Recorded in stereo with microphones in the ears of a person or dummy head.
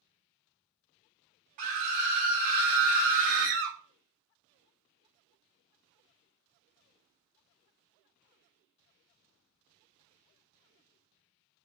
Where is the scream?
40° right (ahead or behind), 0.6 m.